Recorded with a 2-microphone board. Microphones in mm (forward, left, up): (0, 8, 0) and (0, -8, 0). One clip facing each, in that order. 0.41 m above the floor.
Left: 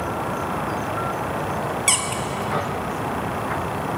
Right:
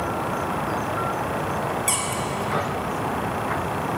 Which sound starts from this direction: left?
A squeak, at 1.9 s.